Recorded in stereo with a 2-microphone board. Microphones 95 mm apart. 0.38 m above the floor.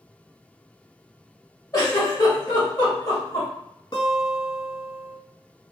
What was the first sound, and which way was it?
A giggle, 40° left (ahead or behind).